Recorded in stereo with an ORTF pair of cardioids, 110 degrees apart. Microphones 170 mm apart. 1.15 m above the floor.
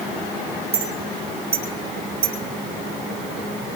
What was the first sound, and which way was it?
A clink, 35° right.